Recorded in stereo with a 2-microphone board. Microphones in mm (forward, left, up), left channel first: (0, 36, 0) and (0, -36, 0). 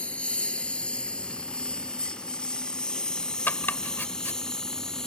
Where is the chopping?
25° left (ahead or behind).